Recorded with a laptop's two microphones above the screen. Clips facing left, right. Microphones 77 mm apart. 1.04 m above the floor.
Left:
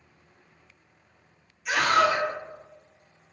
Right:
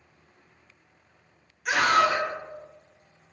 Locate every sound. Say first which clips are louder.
1.6 s a scream: even; 55° right (ahead or behind), 1.8 m